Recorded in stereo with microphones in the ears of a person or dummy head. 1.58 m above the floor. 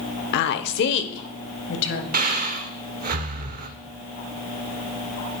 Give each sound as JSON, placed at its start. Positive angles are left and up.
{"t": 0.3, "sound": "a woman speaking", "side_deg": 55, "distance_m": 0.5}
{"t": 2.1, "sound": "breathing", "side_deg": -45, "distance_m": 0.7}